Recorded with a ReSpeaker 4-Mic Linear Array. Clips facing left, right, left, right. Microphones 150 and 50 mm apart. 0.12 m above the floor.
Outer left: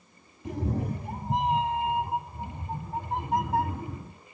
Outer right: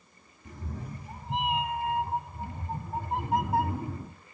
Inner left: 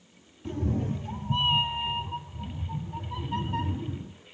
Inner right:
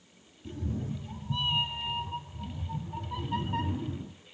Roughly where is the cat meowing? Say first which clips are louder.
Outer left 11 dB, inner left 6 dB; left.